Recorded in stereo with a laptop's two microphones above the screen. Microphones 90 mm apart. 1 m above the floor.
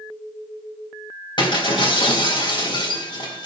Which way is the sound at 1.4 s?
65° left (ahead or behind).